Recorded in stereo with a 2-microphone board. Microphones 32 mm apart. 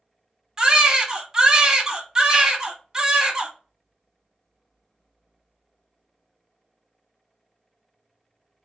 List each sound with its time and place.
0.6 s a baby crying: 20° right (ahead or behind), 0.7 m